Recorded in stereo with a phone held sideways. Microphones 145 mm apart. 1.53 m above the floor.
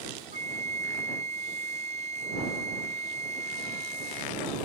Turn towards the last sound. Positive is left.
turn(degrees=-50)  # may be behind; listen again after turning